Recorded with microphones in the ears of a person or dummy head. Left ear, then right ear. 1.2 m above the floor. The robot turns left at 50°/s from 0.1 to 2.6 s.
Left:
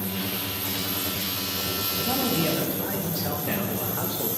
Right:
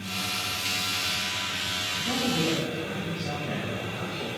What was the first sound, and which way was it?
A man speaking, 80° left.